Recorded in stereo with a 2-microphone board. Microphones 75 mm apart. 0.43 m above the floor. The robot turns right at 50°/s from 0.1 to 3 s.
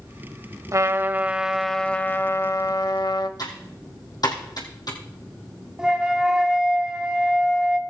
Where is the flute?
10° right (ahead or behind), 1.0 m.